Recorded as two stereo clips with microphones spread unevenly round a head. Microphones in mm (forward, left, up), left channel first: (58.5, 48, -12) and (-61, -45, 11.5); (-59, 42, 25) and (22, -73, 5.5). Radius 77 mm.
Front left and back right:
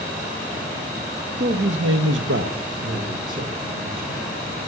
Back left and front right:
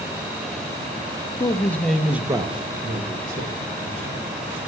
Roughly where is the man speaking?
Behind.